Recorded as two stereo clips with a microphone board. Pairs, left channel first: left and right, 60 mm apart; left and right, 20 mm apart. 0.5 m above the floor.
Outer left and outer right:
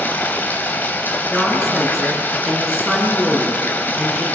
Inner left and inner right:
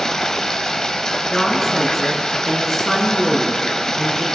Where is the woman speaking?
5° right (ahead or behind), 5 m.